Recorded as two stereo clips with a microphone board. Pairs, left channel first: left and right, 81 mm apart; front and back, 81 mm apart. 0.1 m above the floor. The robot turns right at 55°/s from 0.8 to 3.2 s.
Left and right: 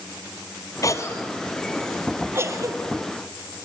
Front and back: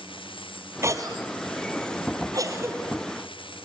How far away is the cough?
About 2.5 m.